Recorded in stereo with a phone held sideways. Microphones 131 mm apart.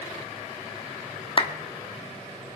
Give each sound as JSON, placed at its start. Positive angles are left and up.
{"t": 1.4, "sound": "a clap", "side_deg": 40, "distance_m": 1.3}